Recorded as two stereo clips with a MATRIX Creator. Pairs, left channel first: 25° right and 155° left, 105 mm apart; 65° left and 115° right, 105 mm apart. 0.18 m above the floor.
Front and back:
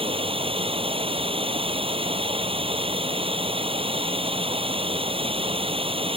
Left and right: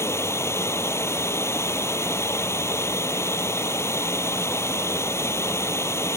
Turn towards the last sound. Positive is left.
turn(degrees=130)